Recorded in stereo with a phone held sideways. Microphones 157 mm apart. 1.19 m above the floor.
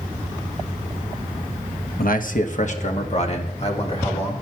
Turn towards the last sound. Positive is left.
turn(degrees=40)  # may be behind; listen again after turning